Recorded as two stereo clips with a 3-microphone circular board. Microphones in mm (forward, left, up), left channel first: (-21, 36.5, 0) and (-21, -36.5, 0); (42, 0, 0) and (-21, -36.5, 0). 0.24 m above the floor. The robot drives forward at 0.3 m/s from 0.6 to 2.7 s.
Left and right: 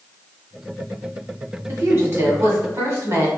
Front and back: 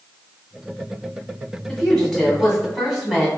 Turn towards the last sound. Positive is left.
turn(degrees=-65)